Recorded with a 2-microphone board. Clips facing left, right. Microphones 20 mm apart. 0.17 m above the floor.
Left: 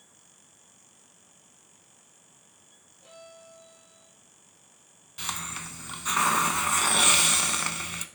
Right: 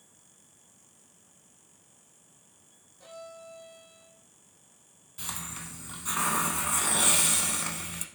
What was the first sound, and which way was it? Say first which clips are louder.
A violin: right 4 dB; 70° right (ahead or behind).